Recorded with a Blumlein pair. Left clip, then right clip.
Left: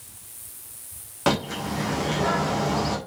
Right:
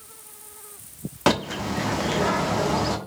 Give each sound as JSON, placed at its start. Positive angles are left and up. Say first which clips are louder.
{"t": 1.3, "sound": "a bird", "louder": "right 2 dB", "azimuth_deg": -15, "distance_m": 1.3}